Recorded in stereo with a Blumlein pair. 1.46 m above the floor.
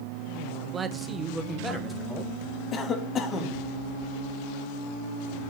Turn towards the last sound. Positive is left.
turn(degrees=25)